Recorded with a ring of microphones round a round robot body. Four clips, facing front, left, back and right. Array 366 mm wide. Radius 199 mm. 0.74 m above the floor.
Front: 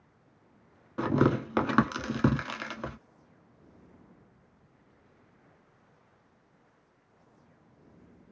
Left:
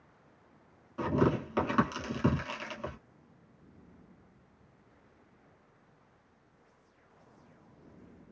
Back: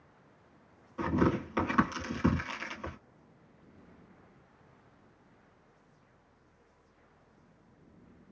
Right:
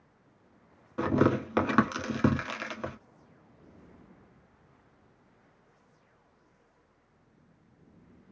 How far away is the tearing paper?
About 1.7 m.